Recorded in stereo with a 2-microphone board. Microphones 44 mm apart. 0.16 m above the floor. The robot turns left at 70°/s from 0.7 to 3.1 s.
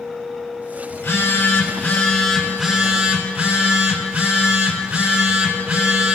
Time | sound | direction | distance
0.9 | a phone buzzing | 110° left | 3.5 m